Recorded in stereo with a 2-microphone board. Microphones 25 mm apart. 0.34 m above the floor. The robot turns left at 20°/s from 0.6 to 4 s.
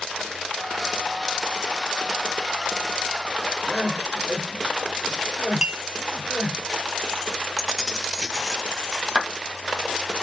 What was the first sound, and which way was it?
Crying, 25° right (ahead or behind).